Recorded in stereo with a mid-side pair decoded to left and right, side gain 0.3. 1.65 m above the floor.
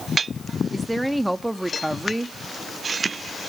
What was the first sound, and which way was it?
A woman speaking, 15° right.